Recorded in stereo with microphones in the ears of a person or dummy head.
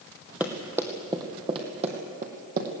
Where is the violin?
No violin in this recording.